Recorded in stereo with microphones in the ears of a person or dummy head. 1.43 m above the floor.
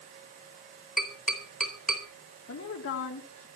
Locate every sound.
1.0 s tapping: centre (ahead or behind), 4 m
2.5 s a woman speaking: 80° left, 2.5 m